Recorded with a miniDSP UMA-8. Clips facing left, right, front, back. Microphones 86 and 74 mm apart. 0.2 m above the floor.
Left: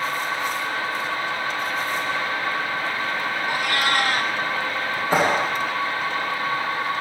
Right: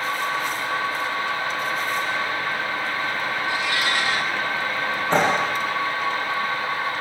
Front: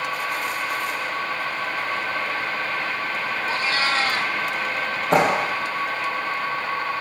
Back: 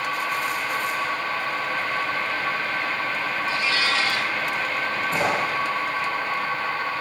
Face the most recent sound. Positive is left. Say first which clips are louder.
# even, front 7 dB
turn(degrees=10)